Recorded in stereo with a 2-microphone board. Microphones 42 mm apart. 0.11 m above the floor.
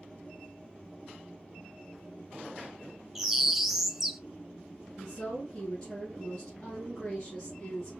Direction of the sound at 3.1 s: 5° right (ahead or behind).